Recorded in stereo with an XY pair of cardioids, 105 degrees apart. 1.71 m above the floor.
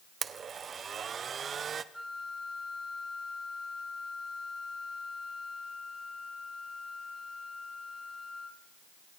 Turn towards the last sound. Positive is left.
turn(degrees=0)